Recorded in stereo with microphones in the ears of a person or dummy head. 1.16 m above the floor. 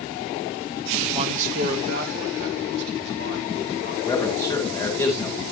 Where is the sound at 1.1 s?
20° right (ahead or behind), 0.6 m; by 4.0 s 55° right (ahead or behind), 4 m.